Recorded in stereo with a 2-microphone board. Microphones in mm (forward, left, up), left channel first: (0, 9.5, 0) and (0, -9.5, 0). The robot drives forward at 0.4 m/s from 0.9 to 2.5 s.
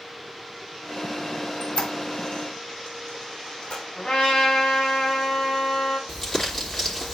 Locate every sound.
1.6 s a squeak: 55° left (ahead or behind), 2.5 m; by 3.8 s 65° left (ahead or behind), 2.5 m
4.0 s a trumpet: 60° left (ahead or behind), 5.5 m
6.1 s crumpling: 20° left (ahead or behind), 3.5 m